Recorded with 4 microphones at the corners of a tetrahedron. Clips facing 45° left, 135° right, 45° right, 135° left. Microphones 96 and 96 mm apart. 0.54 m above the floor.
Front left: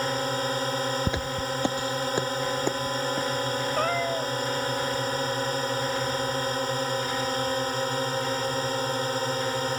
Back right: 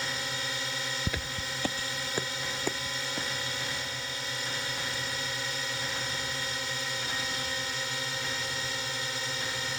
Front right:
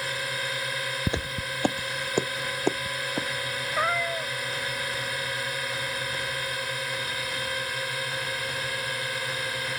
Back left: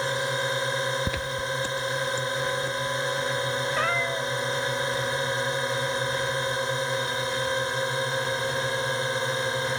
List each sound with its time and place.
0.0 s a drone: 80° left
1.1 s footsteps: 5° left; by 3.3 s 30° right
3.8 s a cat meowing: 35° left